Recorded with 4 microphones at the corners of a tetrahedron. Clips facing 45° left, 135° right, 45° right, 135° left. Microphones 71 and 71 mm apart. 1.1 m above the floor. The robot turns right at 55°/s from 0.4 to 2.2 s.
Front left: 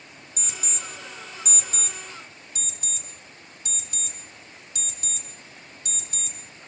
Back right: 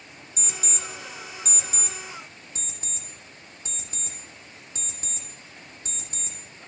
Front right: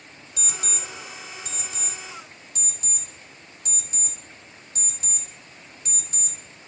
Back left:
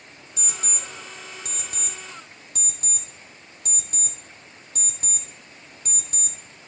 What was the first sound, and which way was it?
An alarm clock, 70° left.